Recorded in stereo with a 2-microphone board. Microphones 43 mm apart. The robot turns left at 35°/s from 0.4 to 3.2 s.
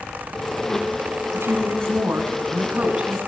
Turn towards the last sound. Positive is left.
turn(degrees=-155)